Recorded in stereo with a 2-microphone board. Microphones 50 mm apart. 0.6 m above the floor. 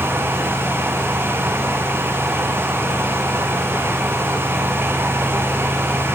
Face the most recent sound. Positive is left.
No sound to turn to.